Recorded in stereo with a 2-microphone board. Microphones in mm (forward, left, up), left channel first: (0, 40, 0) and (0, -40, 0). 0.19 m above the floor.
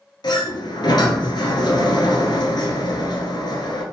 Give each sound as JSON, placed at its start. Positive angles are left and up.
{"t": 0.2, "sound": "a sliding door", "side_deg": 70, "distance_m": 0.9}